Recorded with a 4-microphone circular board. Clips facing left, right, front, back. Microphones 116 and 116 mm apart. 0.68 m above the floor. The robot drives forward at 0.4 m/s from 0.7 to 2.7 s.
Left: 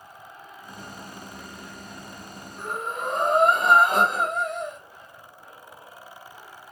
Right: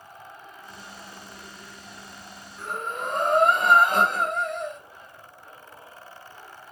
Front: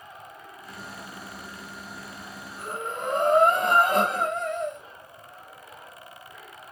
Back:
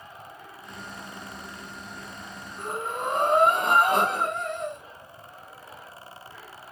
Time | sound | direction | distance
2.6 | breathing | 175° left | 1.8 m